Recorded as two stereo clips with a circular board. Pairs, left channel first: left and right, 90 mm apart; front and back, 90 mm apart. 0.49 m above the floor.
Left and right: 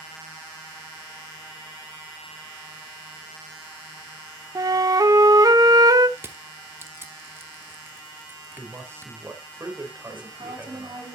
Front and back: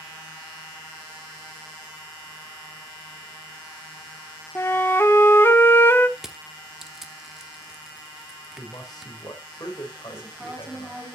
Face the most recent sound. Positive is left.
turn(degrees=-100)